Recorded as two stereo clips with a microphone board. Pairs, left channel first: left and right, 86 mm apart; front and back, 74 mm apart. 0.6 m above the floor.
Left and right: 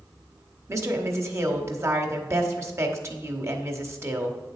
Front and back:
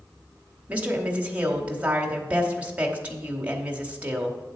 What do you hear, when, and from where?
0.7 s a woman speaking: 120° right, 1.1 m